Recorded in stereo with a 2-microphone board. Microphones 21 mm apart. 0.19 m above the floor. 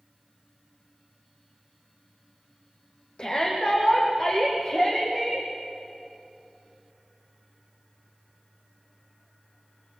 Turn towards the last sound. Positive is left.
turn(degrees=35)  # may be behind; listen again after turning